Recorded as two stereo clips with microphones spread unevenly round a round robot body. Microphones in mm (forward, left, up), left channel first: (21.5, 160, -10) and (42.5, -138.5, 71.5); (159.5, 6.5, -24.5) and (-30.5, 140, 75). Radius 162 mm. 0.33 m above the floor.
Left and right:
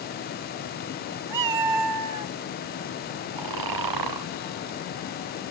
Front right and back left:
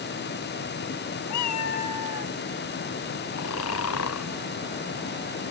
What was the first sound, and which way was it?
A cat meowing, 65° right.